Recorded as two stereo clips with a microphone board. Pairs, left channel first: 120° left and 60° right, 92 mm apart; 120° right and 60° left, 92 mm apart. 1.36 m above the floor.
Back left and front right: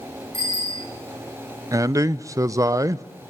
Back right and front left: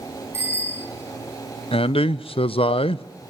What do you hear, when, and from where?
0.3 s a bicycle bell: 5° right, 9.5 m
1.7 s a man speaking: 115° right, 0.6 m